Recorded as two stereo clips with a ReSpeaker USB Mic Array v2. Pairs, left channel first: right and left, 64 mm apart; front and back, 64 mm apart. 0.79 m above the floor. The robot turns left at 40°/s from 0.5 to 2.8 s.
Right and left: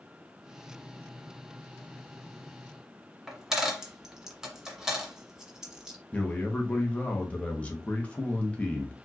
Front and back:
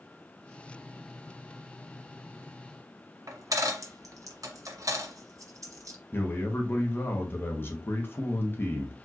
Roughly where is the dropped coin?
Behind.